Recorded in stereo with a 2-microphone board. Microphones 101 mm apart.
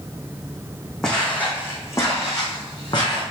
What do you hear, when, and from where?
1.0 s footsteps: 5° left (ahead or behind), 2.0 m; by 3.2 s 45° left (ahead or behind), 3 m